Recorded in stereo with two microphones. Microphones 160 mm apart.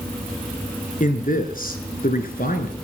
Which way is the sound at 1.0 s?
55° left (ahead or behind).